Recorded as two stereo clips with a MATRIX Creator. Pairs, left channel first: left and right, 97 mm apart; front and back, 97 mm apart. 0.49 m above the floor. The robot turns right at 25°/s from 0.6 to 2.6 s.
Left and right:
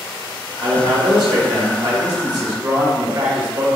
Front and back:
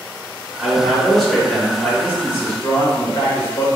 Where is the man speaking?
100° right, 1.4 m; by 3.7 s 50° right, 1.4 m.